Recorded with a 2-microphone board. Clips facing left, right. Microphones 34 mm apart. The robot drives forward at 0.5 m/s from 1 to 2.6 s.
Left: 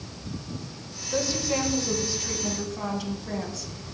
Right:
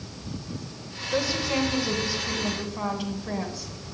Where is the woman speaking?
15° right (ahead or behind), 4 m; by 3.7 s 20° right (ahead or behind), 3 m.